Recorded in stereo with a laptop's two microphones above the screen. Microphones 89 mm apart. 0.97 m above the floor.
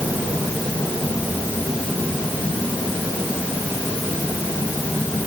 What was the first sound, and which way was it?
Only background noise.